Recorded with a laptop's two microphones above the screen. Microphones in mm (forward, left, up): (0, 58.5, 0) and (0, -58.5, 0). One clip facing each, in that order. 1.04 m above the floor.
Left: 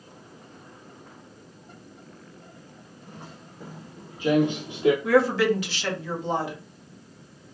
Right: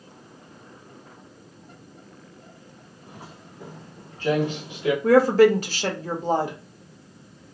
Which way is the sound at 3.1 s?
15° right (ahead or behind).